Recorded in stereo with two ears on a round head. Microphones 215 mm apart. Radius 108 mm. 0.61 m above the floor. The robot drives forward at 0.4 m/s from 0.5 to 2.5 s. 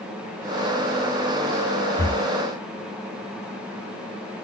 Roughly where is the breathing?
Centre.